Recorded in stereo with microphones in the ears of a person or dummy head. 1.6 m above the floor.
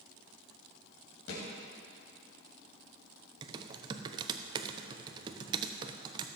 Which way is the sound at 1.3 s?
75° left (ahead or behind).